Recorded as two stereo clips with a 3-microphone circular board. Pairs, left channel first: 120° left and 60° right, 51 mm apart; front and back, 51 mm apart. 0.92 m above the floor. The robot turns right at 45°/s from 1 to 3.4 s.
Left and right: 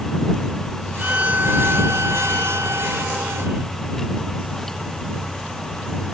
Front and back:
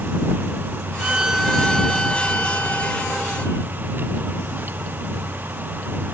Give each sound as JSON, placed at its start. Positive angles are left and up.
{"t": 1.0, "sound": "a violin", "azimuth_deg": -120}